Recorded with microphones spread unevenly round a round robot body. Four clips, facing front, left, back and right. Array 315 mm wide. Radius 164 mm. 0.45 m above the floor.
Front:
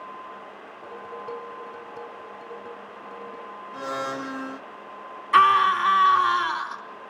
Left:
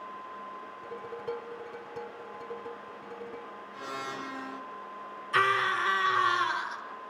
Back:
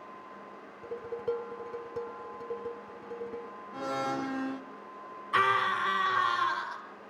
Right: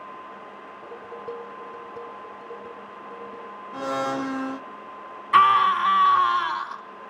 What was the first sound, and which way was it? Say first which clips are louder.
Dishes clattering: right 1 dB, back 2 dB; 165° right.